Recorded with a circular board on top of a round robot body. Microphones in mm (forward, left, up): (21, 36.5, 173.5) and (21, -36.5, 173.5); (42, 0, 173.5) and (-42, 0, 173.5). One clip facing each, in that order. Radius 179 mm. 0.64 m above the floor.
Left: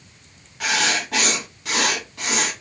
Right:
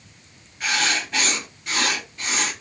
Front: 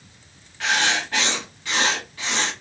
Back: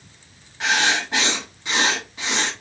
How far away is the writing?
About 0.8 m.